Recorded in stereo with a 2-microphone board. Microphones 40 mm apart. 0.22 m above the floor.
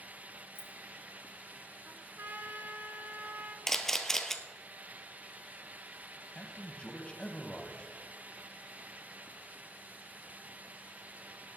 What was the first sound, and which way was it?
Keys jangling, 65° left (ahead or behind).